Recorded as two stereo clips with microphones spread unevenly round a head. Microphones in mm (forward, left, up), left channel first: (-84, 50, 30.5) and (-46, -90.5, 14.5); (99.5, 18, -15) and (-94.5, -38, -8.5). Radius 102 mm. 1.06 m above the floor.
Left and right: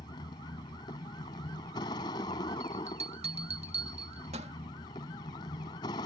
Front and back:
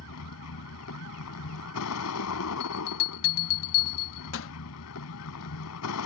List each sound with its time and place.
0.0 s a vehicle: 35° left
2.6 s a bell: 10° right